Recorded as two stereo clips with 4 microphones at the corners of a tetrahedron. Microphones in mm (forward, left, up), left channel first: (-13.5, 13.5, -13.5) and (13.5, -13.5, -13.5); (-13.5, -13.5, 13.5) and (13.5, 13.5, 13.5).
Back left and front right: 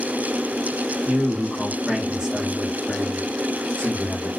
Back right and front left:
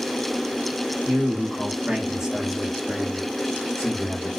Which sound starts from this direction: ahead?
A man speaking, at 1.1 s.